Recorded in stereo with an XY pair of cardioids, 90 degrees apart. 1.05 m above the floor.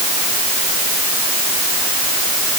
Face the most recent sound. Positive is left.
No sound to turn to.